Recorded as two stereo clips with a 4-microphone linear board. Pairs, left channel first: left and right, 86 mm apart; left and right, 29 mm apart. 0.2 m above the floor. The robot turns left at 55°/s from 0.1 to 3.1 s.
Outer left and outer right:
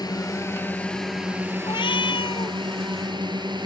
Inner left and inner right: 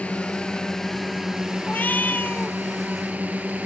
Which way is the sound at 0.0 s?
55° left.